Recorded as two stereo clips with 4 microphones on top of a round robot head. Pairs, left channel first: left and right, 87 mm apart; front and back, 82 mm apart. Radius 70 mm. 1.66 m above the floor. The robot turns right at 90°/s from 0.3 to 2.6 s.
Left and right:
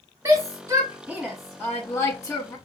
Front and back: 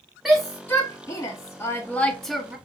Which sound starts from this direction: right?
A shout, at 0.2 s.